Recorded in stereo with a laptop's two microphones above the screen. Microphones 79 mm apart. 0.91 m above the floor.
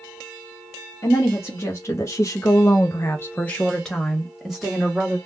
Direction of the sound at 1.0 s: 35° left (ahead or behind).